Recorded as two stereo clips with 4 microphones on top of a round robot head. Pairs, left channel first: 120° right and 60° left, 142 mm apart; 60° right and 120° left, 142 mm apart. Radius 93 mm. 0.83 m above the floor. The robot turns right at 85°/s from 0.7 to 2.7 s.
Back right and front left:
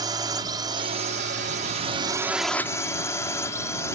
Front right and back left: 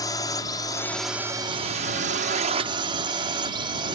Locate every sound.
0.0 s a drone: straight ahead; by 3.9 s 170° left